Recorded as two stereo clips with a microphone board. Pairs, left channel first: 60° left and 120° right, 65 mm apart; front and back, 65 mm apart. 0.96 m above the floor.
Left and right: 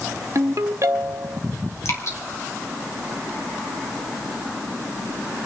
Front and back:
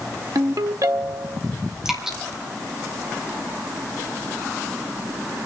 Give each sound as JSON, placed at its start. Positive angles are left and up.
{"t": 0.3, "sound": "a ringtone", "azimuth_deg": -155, "distance_m": 0.8}
{"t": 1.9, "sound": "dripping", "azimuth_deg": 100, "distance_m": 3.0}